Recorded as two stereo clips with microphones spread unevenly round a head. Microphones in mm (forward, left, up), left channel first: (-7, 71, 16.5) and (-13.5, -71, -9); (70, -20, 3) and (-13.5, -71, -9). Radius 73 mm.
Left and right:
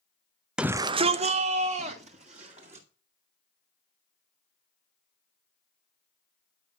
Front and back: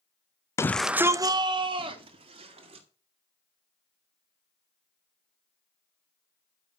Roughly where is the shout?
Ahead right.